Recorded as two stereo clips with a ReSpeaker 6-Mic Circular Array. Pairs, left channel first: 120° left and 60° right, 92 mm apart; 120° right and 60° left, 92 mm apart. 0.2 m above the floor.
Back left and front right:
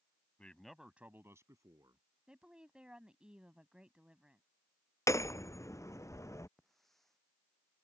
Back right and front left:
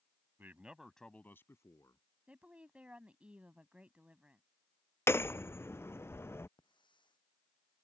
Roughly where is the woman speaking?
Ahead.